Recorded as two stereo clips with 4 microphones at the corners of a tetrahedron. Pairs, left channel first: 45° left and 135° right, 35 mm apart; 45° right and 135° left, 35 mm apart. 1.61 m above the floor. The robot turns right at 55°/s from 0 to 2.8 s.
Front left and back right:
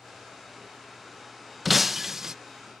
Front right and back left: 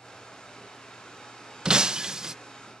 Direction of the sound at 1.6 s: 140° left.